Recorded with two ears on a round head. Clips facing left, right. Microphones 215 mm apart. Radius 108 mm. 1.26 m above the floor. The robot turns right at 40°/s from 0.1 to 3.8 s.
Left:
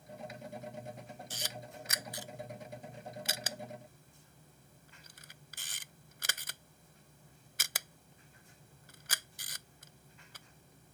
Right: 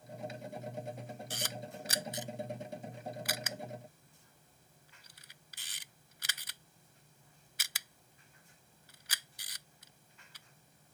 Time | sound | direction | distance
1.3 | a camera shutter | 55° right (ahead or behind) | ?